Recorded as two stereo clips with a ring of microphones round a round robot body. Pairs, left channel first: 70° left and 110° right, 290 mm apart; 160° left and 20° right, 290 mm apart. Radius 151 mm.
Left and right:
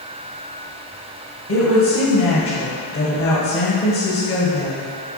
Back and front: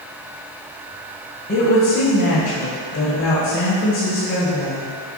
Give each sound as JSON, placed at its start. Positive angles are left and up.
{"t": 1.5, "sound": "a woman speaking", "azimuth_deg": 105, "distance_m": 1.8}